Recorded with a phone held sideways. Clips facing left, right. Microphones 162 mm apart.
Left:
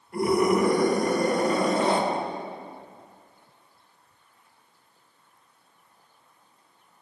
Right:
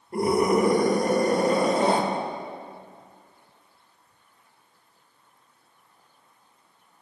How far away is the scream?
About 2 m.